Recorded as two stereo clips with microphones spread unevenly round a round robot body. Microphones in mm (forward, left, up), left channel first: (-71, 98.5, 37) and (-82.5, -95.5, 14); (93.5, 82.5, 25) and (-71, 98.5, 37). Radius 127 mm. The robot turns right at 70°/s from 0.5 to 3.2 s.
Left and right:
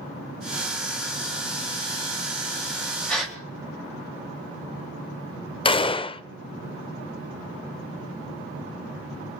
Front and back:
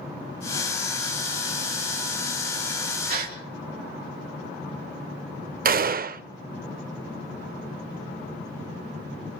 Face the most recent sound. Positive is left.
turn(degrees=155)